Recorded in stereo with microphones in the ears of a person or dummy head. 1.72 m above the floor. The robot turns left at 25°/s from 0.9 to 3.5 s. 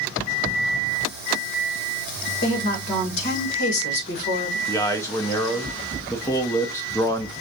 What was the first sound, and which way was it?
A woman speaking, 35° left (ahead or behind).